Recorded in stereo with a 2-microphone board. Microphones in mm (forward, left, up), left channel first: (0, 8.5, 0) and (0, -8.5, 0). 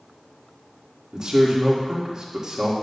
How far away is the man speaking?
About 1.6 m.